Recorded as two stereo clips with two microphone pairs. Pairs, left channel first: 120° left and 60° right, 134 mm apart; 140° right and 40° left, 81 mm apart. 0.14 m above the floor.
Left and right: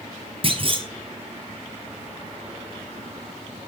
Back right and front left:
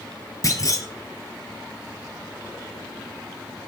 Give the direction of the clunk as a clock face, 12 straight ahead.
3 o'clock.